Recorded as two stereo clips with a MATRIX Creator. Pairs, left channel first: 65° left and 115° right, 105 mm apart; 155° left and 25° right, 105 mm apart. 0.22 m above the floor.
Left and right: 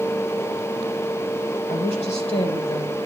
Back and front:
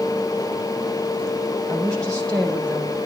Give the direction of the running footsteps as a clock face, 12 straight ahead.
No running footsteps in this recording.